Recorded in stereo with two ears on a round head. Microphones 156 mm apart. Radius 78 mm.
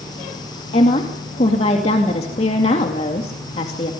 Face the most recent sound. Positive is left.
turn(degrees=40)  # may be behind; listen again after turning